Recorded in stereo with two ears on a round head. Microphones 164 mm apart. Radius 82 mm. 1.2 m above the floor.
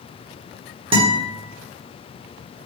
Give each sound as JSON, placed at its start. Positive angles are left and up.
{"t": 0.9, "sound": "a guitar", "side_deg": -30, "distance_m": 1.0}